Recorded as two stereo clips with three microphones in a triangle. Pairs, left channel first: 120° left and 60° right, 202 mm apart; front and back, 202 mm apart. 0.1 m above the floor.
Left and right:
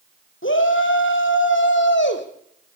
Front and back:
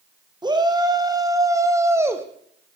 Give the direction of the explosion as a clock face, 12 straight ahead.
I don't hear an explosion.